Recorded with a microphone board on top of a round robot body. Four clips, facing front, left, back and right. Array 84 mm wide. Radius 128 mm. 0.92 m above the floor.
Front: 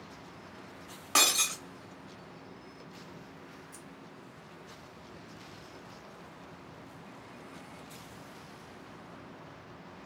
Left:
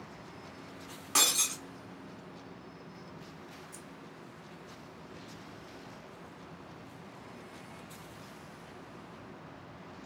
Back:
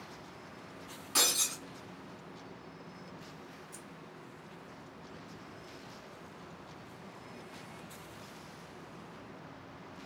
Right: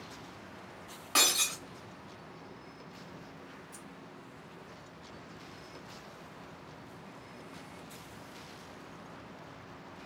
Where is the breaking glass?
10° right, 0.6 m.